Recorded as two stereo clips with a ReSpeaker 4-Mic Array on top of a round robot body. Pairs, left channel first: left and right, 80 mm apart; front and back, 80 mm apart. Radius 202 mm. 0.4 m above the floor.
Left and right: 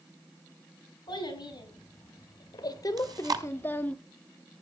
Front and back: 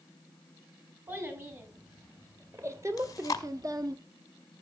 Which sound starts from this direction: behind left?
A child speaking, at 1.1 s.